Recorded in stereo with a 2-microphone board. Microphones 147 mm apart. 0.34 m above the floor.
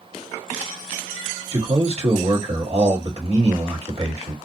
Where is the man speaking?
40° right (ahead or behind), 1.6 m.